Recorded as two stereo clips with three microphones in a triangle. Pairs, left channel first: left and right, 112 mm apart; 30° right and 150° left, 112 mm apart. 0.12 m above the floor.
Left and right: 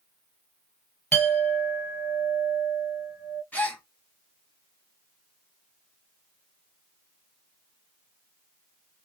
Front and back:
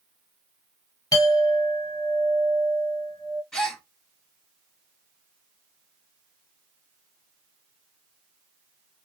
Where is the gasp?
40° left, 0.9 m.